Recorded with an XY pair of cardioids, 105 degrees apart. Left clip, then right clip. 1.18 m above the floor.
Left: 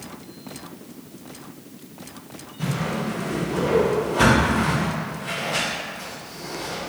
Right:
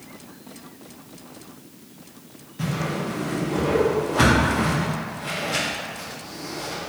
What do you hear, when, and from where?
2.6 s a whoosh: 60° right, 1.0 m